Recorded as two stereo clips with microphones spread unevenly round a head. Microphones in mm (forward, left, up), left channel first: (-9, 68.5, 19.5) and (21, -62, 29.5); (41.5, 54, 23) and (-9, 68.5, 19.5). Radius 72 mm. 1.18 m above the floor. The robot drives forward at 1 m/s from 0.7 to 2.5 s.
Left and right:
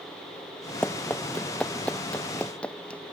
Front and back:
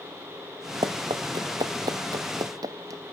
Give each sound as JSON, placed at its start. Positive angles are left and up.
{"t": 0.8, "sound": "running footsteps", "azimuth_deg": -175}